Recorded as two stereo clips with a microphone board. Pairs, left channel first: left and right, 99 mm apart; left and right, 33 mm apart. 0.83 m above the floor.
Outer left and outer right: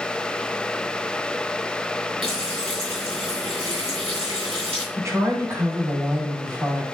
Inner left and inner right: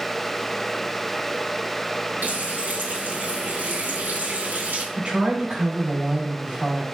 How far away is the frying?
About 5.5 m.